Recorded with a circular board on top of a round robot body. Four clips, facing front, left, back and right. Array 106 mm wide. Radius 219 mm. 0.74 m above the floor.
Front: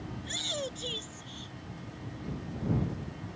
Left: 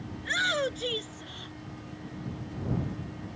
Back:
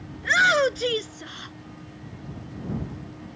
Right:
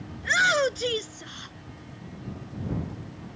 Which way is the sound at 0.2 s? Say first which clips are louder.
Right 7 dB, back 20 dB; 160° right.